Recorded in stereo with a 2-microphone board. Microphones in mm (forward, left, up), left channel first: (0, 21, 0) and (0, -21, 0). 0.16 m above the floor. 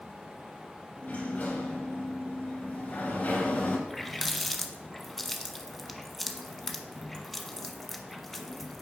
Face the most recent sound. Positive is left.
turn(degrees=10)  # may be behind; listen again after turning